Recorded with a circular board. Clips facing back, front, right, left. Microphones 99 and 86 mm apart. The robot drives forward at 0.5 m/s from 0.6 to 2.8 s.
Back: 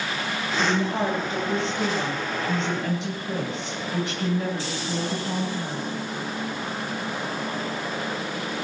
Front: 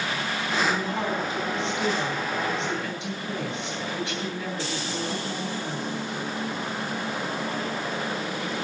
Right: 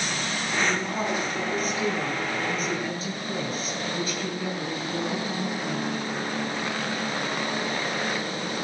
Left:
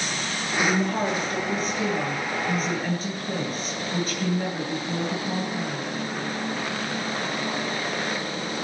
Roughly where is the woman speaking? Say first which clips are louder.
Back 4 dB, left 4 dB; behind left.